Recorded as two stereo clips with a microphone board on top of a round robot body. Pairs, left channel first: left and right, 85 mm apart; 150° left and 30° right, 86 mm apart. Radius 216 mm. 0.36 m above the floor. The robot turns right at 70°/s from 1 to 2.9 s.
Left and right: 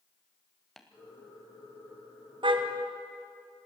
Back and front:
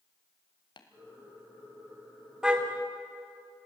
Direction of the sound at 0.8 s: 175° left.